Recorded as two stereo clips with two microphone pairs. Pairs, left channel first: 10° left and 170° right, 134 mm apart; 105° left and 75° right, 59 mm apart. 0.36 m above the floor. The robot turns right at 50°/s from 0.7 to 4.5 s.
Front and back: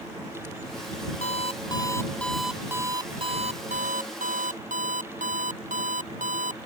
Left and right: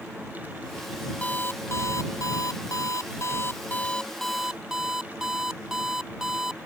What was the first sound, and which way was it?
An alarm clock, 40° left.